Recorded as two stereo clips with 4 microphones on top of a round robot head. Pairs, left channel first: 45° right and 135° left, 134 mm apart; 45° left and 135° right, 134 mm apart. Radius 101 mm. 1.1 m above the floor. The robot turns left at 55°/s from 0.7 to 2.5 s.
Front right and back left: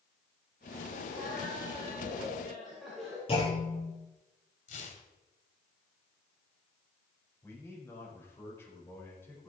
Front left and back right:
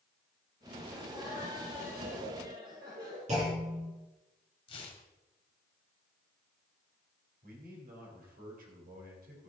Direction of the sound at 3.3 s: 95° right.